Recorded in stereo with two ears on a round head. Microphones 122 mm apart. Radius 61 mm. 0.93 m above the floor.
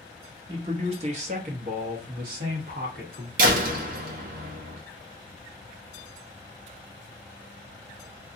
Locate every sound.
0.5 s a man speaking: 35° right (ahead or behind), 0.9 m; by 3.3 s 70° right (ahead or behind), 1.5 m
3.4 s a door slam: 65° right (ahead or behind), 0.7 m